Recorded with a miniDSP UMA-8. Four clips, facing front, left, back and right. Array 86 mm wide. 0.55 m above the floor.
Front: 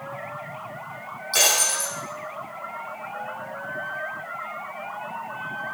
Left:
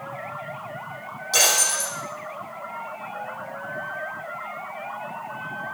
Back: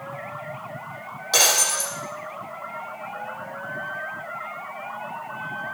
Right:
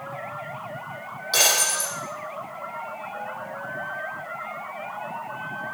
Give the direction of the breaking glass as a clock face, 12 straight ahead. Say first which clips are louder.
Left 1 dB, back 2 dB; 6 o'clock.